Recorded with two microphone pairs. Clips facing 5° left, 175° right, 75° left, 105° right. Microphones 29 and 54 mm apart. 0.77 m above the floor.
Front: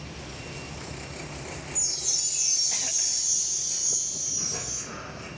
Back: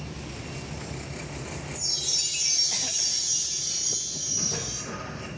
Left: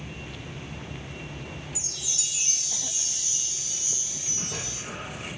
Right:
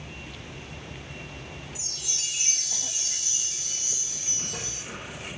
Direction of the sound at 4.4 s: 105° left.